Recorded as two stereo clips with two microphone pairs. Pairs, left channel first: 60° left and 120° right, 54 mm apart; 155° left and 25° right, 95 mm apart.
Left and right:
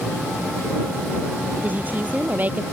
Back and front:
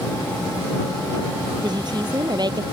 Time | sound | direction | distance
1.6 | a woman speaking | 65° right | ?